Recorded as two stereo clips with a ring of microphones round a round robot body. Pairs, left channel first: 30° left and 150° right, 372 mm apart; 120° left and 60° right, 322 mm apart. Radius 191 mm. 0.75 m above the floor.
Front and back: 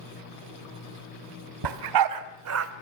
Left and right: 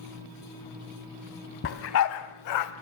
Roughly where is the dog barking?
Behind.